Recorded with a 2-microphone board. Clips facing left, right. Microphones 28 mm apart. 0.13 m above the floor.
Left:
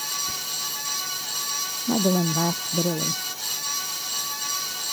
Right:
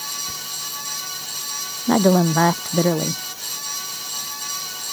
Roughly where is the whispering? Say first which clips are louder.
Even; left.